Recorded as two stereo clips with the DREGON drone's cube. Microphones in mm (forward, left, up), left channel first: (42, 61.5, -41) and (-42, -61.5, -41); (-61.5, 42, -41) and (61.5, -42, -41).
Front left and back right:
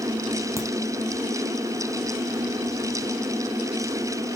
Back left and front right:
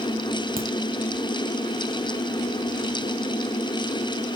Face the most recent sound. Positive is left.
turn(degrees=-55)